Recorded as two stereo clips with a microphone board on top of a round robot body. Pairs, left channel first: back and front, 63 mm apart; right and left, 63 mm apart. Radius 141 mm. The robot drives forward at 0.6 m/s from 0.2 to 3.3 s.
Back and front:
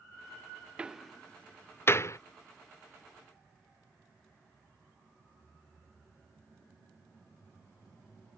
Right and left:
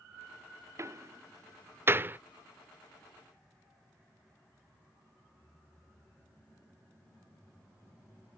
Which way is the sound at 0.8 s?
70° left.